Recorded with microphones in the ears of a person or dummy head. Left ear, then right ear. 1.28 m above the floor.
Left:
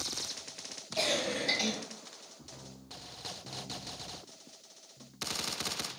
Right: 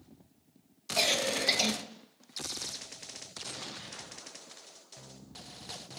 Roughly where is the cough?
Right.